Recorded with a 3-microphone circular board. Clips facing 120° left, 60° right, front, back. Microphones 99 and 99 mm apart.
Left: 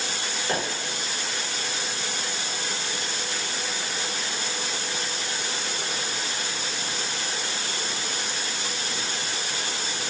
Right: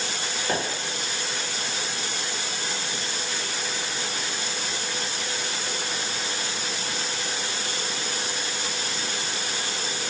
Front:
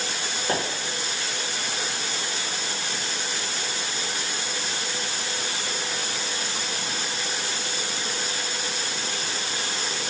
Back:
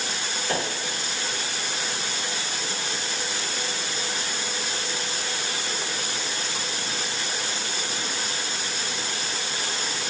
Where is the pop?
15° left, 1.2 m.